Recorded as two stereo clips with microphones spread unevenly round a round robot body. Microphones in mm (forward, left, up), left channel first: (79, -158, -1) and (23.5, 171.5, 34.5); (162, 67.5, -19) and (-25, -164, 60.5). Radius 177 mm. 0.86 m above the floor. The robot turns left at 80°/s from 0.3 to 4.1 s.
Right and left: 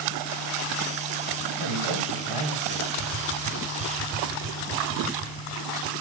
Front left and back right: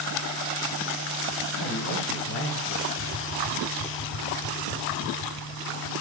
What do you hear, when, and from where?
1.6 s a man speaking: 75° left, 8.5 m; by 2.9 s 30° right, 8.5 m
3.0 s tapping: 55° right, 1.6 m; by 5.9 s 145° right, 1.6 m